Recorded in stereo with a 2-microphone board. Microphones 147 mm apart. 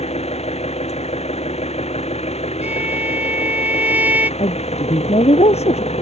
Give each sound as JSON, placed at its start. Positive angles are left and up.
{"t": 0.0, "sound": "an engine running", "side_deg": 45}
{"t": 2.6, "sound": "a violin", "side_deg": -10}
{"t": 4.4, "sound": "a woman speaking", "side_deg": 45}